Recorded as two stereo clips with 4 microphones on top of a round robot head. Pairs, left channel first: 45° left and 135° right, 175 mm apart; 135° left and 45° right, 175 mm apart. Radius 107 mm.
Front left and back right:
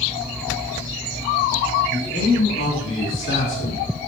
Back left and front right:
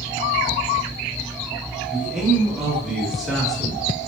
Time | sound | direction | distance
1.9 | a man speaking | 45° left | 3 m